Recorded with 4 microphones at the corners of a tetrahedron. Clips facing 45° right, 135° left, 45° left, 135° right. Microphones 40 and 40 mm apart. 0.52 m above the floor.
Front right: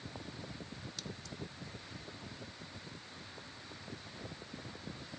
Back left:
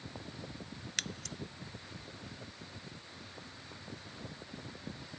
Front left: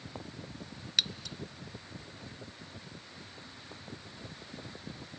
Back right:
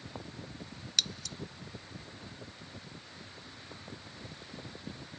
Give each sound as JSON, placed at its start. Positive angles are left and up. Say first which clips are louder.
{"t": 1.0, "sound": "scissors", "louder": "back left 10 dB, front left 1 dB", "azimuth_deg": 115}